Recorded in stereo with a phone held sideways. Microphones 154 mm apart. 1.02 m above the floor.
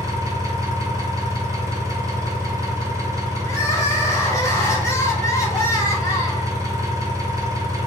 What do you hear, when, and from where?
0.0 s an engine running: 25° right (ahead or behind), 0.7 m
3.5 s crying: 20° left (ahead or behind), 0.9 m